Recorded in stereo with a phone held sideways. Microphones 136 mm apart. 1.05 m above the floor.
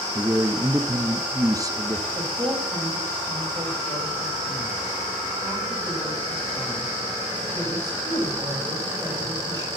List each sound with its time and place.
0.1 s a man speaking: 25° right (ahead or behind), 0.9 m
2.1 s a woman speaking: 30° right (ahead or behind), 6 m